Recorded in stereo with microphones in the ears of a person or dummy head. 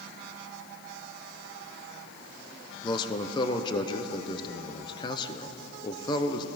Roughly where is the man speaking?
Centre.